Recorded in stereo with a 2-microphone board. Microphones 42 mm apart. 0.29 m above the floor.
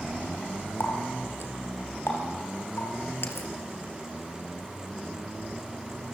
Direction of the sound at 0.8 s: 75° left (ahead or behind).